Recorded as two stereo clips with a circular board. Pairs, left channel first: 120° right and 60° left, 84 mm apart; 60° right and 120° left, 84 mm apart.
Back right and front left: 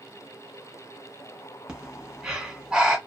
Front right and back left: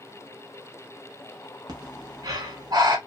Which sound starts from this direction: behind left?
Breathing, at 1.7 s.